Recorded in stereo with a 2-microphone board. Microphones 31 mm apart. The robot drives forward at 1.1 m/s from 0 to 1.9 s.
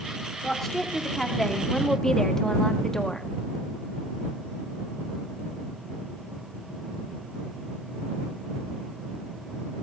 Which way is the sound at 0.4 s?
10° left (ahead or behind).